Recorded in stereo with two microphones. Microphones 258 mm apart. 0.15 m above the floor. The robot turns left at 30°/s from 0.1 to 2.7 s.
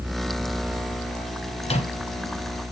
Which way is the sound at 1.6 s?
25° left (ahead or behind).